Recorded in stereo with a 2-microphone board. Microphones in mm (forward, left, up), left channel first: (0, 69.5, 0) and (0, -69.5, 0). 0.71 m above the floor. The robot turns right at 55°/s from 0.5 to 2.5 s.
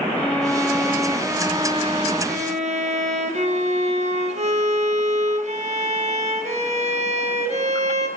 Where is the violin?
165° left, 1.3 m; by 8.1 s 85° right, 1.3 m.